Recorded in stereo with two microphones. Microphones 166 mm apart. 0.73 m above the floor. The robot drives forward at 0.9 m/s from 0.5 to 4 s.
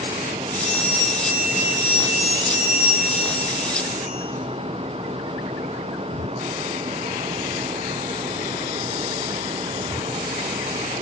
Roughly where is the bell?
Centre.